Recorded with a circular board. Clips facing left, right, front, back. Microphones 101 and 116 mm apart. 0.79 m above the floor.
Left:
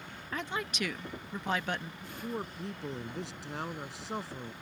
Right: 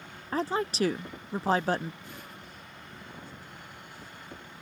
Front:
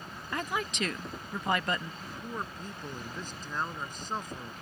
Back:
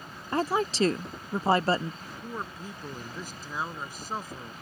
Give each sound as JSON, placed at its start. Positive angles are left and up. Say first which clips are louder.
{"t": 0.3, "sound": "a woman speaking", "louder": "right 8 dB, back 7 dB", "azimuth_deg": -135}
{"t": 2.0, "sound": "a man speaking", "louder": "left 8 dB, back 1 dB", "azimuth_deg": 95}